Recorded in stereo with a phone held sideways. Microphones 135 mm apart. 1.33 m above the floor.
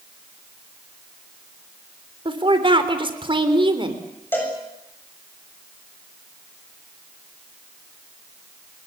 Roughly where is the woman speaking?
Right.